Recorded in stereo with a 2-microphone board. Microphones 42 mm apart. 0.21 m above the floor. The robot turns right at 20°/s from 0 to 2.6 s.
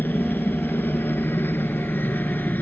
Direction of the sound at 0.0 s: 70° left.